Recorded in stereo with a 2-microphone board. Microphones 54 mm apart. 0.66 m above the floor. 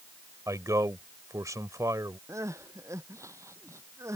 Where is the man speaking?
80° right.